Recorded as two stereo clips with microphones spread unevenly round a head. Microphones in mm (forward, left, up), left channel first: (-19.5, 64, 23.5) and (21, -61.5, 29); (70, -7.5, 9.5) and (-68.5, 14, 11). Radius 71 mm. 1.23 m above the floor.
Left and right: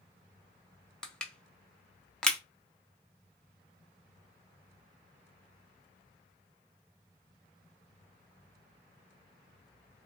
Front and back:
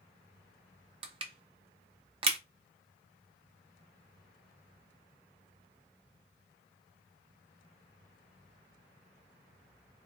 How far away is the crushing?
About 0.6 m.